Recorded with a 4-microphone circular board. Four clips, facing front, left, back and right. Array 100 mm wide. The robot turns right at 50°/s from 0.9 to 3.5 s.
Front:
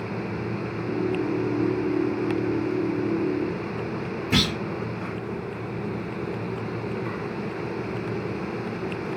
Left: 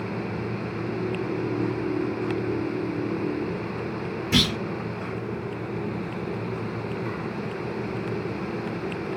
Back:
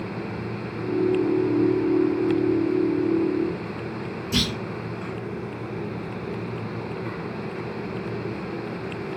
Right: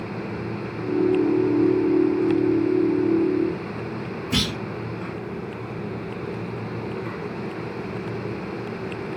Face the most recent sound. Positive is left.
turn(degrees=5)